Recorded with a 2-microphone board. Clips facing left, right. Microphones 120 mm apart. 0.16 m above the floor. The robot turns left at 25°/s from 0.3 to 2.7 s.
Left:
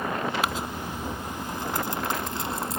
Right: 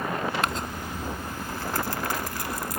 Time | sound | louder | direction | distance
0.4 | crumpling | even | 5° left (ahead or behind) | ?